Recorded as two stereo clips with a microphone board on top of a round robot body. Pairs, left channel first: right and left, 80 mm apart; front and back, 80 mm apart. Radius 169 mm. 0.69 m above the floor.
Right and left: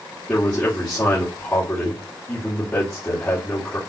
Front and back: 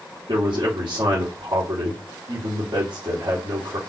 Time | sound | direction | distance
0.3 | a man speaking | 160° right | 3.5 m